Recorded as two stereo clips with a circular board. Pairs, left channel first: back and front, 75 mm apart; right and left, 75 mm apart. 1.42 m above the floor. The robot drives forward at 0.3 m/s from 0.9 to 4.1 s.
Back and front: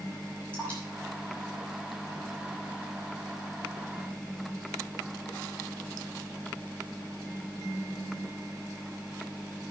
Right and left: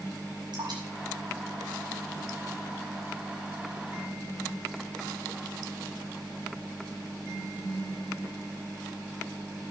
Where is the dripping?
105° left, 5.5 m; by 2.5 s 110° left, 5.5 m.